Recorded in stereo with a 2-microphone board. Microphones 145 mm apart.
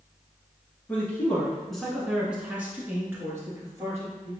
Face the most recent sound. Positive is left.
turn(degrees=-20)  # may be behind; listen again after turning